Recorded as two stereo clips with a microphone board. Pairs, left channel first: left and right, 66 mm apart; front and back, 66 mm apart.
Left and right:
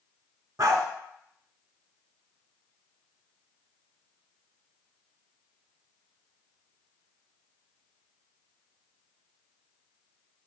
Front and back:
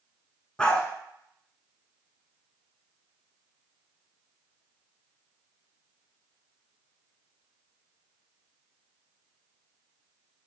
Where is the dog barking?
75° right, 0.5 m.